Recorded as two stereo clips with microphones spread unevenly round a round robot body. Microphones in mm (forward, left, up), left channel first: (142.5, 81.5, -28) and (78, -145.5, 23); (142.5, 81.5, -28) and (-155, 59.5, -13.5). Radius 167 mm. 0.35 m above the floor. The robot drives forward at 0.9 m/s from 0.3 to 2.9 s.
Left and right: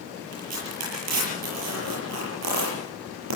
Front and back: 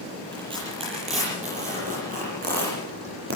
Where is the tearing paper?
100° right, 8.5 m; by 3.4 s 115° right, 9.5 m.